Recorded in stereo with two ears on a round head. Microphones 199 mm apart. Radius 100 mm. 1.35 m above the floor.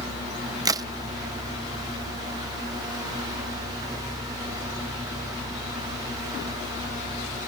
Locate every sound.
0.7 s a crack: 15° right (ahead or behind)